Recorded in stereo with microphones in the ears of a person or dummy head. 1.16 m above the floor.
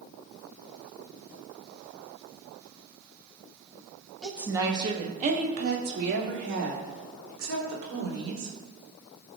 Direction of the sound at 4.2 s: 5° left (ahead or behind).